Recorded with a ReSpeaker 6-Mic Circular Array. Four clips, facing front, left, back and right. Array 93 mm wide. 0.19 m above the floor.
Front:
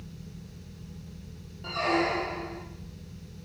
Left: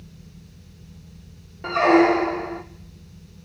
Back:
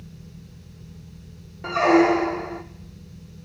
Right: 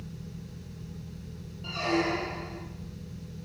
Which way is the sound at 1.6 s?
125° left.